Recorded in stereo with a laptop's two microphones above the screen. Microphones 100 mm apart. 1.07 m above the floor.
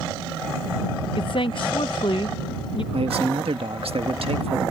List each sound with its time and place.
1.2 s a woman speaking: 55° left (ahead or behind)
2.9 s a man speaking: 75° right (ahead or behind)